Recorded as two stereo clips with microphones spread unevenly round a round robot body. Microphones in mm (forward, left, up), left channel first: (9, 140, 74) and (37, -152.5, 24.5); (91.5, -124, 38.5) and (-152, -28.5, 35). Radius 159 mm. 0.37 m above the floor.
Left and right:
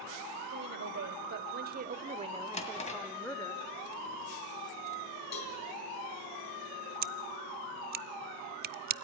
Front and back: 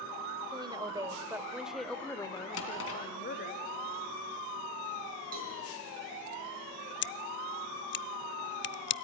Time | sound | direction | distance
0.5 | a woman speaking | 130° right | 1.7 m
2.5 | a drawer | 25° left | 2.5 m
5.3 | a cowbell | 95° left | 3 m
7.0 | scissors | 50° right | 0.5 m